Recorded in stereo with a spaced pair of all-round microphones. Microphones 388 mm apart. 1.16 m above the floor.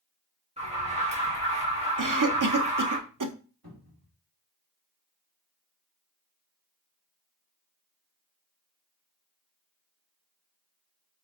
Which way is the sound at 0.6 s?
15° right (ahead or behind).